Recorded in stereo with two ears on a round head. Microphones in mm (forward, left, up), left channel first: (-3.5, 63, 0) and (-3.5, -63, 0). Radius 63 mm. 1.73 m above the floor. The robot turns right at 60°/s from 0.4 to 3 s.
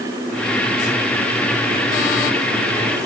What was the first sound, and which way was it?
Only background noise.